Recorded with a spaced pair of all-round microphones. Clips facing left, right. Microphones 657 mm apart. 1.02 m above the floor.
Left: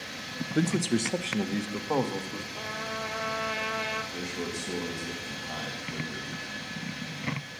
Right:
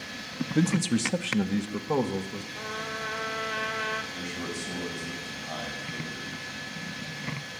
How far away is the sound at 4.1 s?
About 5.5 m.